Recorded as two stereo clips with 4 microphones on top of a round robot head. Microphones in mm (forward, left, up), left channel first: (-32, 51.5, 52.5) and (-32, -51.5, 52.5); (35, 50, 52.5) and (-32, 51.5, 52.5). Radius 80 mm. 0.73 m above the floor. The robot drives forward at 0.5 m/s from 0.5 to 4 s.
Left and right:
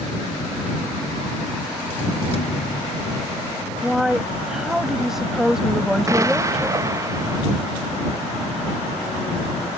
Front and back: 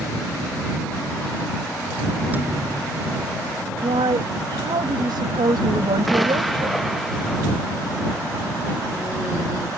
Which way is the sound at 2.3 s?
115° left.